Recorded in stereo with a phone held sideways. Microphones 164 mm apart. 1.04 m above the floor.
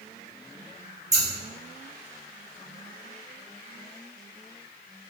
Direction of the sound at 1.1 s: 20° right (ahead or behind).